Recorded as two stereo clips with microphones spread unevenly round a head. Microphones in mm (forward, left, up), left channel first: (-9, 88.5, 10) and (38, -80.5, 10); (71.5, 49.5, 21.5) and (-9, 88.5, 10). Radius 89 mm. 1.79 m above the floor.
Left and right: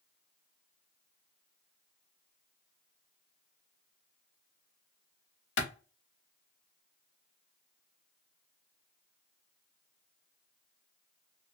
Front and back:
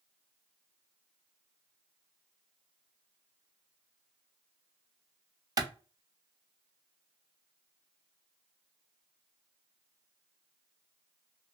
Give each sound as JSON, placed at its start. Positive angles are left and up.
{"t": 5.6, "sound": "a clap", "azimuth_deg": 110, "distance_m": 0.9}